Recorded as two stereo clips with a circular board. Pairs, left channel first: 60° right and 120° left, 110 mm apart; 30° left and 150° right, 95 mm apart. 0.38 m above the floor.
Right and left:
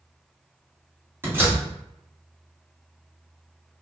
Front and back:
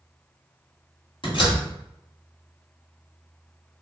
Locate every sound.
1.2 s a door slam: 50° left, 2 m